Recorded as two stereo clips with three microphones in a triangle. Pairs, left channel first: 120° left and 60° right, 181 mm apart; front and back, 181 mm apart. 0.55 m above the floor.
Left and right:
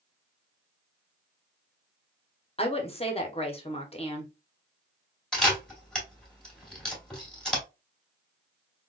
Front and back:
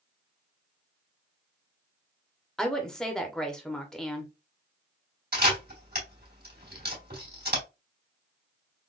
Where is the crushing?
I don't hear crushing.